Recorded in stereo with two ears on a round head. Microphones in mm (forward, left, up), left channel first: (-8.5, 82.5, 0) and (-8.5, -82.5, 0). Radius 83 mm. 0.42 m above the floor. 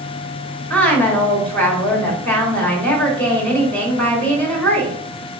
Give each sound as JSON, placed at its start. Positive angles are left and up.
{"t": 0.7, "sound": "a woman speaking", "side_deg": 10, "distance_m": 1.6}